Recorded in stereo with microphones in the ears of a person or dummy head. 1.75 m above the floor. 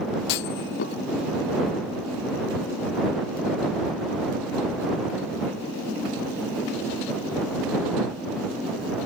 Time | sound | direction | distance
0.3 | a clunk | 60° left (ahead or behind) | ?